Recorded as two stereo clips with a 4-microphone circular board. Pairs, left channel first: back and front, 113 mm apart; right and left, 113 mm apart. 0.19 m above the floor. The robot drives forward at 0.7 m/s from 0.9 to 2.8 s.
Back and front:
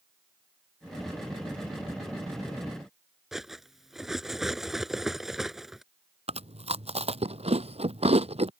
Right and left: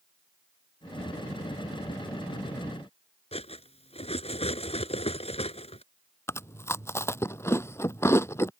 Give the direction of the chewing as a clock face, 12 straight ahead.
1 o'clock.